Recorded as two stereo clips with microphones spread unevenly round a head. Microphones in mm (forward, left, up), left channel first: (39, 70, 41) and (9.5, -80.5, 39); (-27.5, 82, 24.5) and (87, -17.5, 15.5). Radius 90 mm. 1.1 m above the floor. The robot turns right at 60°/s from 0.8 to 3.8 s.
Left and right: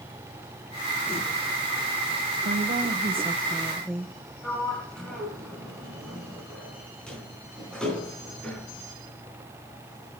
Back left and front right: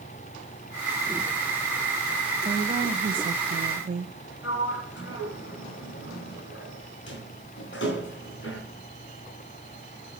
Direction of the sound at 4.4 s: 165° left.